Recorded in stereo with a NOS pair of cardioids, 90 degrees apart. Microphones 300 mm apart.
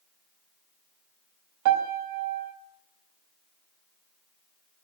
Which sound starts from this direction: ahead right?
A piano, at 1.6 s.